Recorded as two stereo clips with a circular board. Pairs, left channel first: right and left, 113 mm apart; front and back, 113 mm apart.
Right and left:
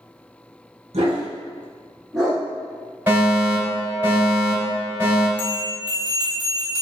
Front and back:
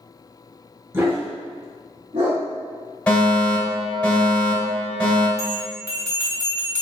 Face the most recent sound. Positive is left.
turn(degrees=-125)